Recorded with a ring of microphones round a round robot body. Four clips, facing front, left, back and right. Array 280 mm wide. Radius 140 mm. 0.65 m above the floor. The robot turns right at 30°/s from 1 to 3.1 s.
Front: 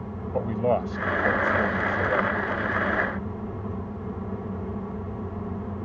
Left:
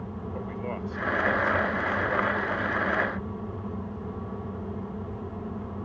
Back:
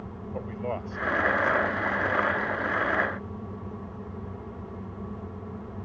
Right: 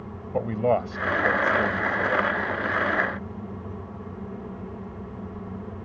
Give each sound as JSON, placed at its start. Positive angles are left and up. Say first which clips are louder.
{"t": 0.3, "sound": "a man speaking", "louder": "right 13 dB, front 9 dB", "azimuth_deg": -55}